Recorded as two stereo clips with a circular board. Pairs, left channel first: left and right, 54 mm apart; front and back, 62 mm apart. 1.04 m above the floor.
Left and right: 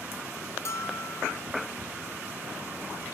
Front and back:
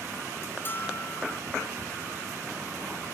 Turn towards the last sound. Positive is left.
turn(degrees=60)